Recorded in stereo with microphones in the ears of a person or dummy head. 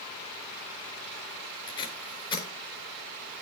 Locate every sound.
1.7 s tape being pulled: 35° left (ahead or behind), 4 m